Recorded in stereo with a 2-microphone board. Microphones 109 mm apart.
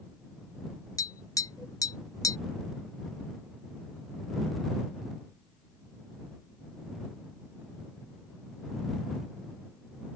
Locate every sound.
1.0 s tapping: 30° left (ahead or behind)